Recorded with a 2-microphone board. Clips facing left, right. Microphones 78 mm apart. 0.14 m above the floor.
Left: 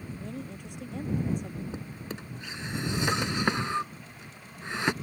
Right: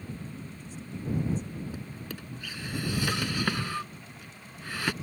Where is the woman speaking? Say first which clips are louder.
Left 3 dB; 65° left (ahead or behind); by 1.6 s 55° left (ahead or behind).